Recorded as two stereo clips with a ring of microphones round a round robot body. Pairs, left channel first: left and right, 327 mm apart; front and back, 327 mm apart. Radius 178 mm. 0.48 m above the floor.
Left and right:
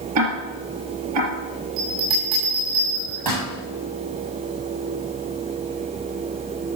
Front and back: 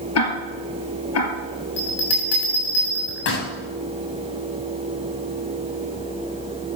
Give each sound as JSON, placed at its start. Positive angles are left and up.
{"t": 0.1, "sound": "ticking", "azimuth_deg": -45, "distance_m": 3.0}
{"t": 1.8, "sound": "a bell", "azimuth_deg": -55, "distance_m": 7.0}